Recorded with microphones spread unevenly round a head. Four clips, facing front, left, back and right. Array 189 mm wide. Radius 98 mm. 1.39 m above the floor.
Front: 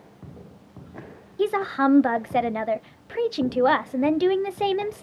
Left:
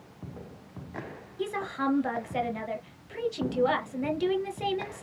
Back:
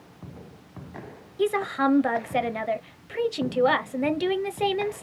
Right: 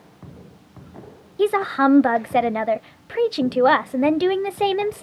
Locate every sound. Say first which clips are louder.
1.4 s a woman speaking: right 13 dB, front 2 dB; 95° right, 0.6 m